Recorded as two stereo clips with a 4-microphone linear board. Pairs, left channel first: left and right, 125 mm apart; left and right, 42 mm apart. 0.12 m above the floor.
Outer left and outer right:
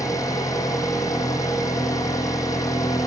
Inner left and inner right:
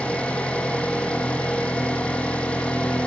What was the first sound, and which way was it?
An engine running, 30° left (ahead or behind).